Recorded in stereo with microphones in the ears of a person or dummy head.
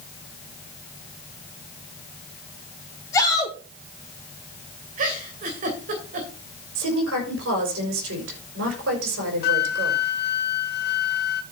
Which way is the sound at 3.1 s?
15° left (ahead or behind).